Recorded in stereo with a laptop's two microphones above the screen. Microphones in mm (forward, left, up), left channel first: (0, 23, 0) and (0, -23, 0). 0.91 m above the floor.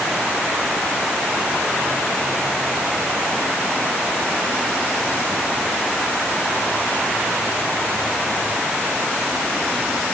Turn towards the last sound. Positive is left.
No sound to turn to.